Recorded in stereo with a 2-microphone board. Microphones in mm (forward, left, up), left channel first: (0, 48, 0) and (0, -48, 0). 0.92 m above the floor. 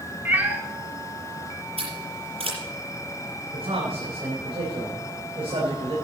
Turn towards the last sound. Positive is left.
turn(degrees=-80)